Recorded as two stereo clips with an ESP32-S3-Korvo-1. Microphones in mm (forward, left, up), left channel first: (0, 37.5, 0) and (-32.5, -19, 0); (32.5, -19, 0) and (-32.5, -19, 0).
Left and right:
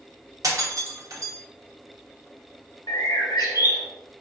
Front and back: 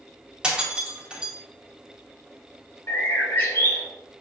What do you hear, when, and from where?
0.4 s breaking glass: 105° right, 1.1 m
2.9 s a bird: 50° left, 0.9 m